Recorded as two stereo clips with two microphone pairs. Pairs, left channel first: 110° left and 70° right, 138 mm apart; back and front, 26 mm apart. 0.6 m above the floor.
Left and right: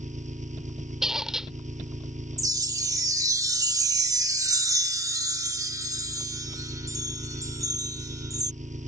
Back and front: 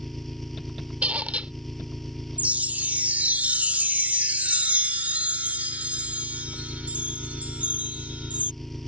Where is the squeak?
20° left.